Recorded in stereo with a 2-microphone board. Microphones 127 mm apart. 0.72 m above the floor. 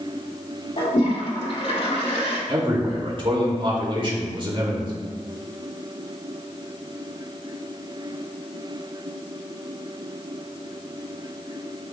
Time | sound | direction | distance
0.8 | a toilet flushing | 60° left (ahead or behind) | 2 m
2.5 | a man speaking | 40° right (ahead or behind) | 2 m